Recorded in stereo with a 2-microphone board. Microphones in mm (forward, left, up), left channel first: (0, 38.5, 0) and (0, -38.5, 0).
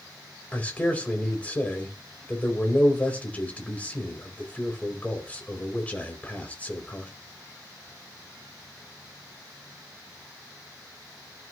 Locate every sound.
0.5 s a man speaking: 20° left (ahead or behind), 3 m